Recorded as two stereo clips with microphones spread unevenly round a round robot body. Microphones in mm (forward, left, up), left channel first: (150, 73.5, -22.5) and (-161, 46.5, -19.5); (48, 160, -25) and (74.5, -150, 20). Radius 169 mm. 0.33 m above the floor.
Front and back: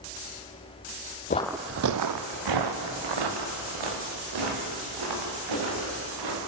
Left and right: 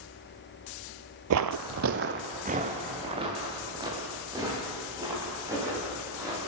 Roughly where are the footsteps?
Ahead right.